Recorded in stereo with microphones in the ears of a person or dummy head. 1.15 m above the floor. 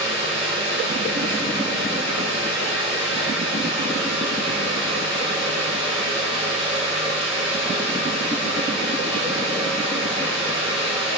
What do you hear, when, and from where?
0.0 s a fan: 30° right (ahead or behind), 1.4 m